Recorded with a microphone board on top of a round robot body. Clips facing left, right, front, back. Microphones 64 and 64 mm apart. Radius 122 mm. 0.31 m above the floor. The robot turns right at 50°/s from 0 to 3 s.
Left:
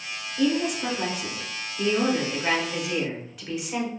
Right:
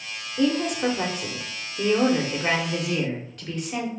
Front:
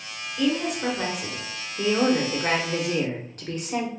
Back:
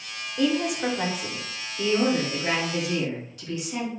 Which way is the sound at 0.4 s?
125° right.